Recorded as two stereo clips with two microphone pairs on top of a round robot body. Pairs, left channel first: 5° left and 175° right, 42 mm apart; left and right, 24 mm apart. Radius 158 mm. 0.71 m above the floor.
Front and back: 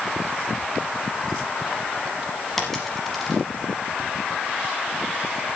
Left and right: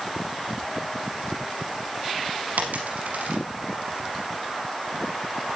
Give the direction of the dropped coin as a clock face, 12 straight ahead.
3 o'clock.